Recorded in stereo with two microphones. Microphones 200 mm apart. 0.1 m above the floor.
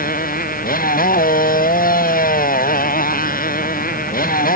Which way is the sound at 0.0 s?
45° left (ahead or behind).